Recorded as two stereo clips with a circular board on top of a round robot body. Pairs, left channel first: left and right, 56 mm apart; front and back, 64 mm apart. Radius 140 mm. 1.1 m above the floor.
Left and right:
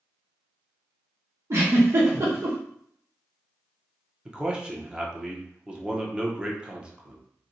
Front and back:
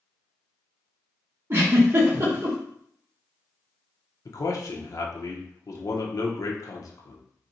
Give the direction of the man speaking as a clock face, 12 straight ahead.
1 o'clock.